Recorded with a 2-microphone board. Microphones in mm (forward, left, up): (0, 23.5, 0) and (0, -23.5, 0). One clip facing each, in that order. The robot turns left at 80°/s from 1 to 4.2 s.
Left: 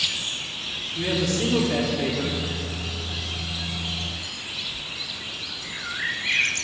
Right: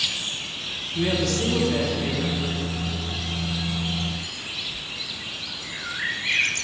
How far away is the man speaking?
About 0.9 m.